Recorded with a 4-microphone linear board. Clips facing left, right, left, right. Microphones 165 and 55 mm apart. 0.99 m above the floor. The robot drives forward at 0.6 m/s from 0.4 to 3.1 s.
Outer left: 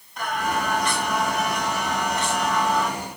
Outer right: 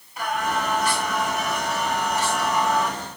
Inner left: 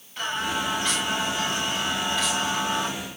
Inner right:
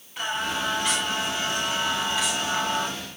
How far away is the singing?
About 8 m.